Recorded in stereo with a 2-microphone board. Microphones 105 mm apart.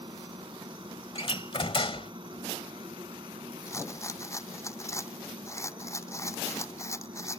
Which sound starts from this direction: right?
A helicopter, at 0.0 s.